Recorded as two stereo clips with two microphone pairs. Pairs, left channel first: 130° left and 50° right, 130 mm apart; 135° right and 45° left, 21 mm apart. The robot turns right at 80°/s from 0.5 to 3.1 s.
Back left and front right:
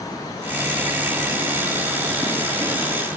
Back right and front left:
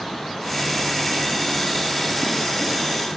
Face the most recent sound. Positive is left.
No sound to turn to.